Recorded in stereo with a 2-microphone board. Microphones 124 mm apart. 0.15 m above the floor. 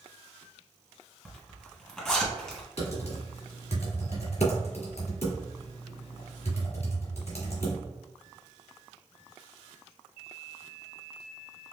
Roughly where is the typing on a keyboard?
Left.